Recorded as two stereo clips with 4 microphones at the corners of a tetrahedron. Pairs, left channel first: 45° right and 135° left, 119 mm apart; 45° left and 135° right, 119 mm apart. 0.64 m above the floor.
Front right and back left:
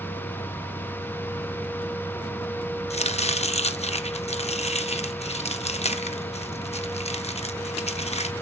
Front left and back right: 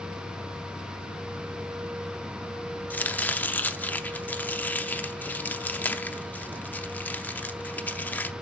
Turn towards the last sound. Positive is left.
turn(degrees=-30)